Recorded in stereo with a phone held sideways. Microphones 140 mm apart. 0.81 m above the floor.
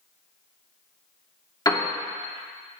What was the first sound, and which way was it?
A piano, 25° left (ahead or behind).